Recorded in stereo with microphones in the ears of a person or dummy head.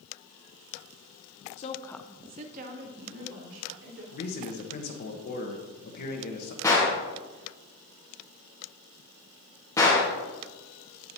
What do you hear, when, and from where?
1.6 s a woman speaking: 40° left (ahead or behind), 0.9 m; by 4.0 s 75° right (ahead or behind), 2.5 m
4.1 s a man speaking: 50° left (ahead or behind), 1.1 m
6.6 s a gunshot: 15° left (ahead or behind), 1.5 m